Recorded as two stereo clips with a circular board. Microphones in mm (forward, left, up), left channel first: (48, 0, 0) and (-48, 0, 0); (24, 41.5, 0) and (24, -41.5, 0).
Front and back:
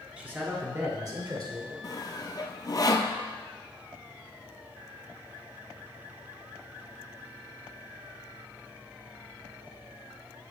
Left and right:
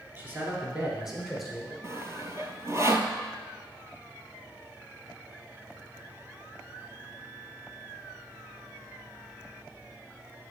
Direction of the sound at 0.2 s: 120° right.